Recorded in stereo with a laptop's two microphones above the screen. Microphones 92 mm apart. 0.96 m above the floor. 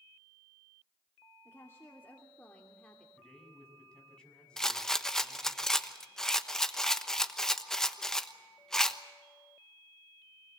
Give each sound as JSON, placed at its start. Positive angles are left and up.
{"t": 1.4, "sound": "a woman speaking", "side_deg": 30, "distance_m": 2.5}
{"t": 3.2, "sound": "a man speaking", "side_deg": 10, "distance_m": 6.0}
{"t": 4.6, "sound": "a rattle", "side_deg": 5, "distance_m": 1.1}